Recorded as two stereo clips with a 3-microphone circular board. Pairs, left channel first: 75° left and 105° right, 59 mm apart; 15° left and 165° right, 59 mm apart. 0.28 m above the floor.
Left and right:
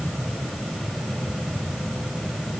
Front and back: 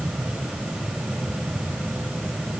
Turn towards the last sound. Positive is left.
No sound to turn to.